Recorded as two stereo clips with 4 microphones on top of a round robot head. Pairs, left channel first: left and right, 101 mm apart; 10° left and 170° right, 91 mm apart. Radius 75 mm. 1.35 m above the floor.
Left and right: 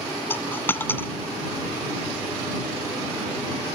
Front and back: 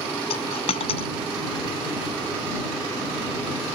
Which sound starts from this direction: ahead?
A dropped coin, at 0.3 s.